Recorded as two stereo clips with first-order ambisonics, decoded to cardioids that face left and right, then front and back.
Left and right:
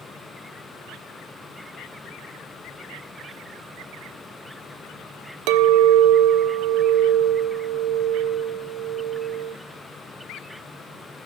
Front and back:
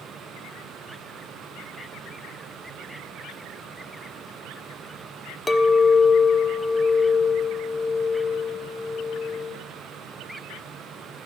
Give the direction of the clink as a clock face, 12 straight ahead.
3 o'clock.